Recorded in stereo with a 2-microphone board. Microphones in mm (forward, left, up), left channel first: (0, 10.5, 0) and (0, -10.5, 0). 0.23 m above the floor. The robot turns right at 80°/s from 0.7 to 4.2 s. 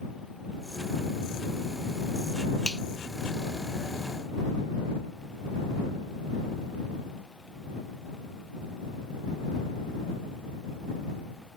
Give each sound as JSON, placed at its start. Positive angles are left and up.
{"t": 2.6, "sound": "a finger snap", "side_deg": 30}